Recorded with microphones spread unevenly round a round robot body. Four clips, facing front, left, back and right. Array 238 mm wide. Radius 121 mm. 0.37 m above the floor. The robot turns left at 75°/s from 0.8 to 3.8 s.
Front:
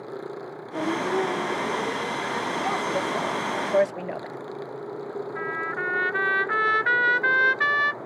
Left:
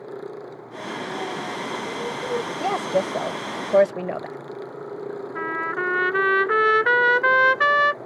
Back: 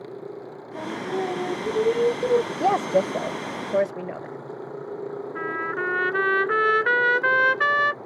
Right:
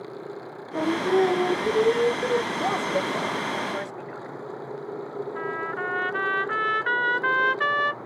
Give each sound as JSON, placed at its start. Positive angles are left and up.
{"t": 0.7, "sound": "singing", "azimuth_deg": -55}
{"t": 2.6, "sound": "a woman speaking", "azimuth_deg": 180}
{"t": 5.3, "sound": "a trumpet", "azimuth_deg": 125}